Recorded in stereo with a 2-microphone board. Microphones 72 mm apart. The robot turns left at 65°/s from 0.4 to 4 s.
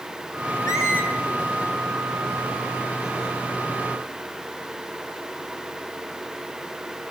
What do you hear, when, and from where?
0.7 s a squeak: 50° left (ahead or behind), 8 m; by 1.1 s 20° left (ahead or behind), 8 m